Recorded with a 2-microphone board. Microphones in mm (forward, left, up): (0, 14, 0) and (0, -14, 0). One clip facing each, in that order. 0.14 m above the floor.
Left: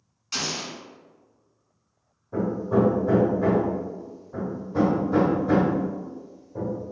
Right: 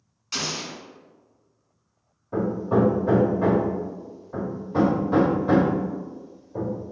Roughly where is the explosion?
Centre.